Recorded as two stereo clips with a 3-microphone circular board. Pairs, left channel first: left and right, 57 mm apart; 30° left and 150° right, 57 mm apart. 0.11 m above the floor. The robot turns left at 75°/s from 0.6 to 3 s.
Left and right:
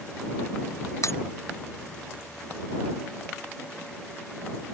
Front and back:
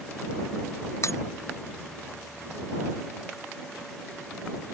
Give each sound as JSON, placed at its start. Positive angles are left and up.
{"t": 1.0, "sound": "breaking glass", "azimuth_deg": 65}